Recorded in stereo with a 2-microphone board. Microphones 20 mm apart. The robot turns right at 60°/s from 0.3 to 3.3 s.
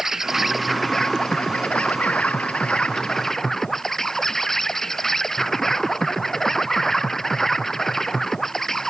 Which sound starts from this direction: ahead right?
An insect, at 0.0 s.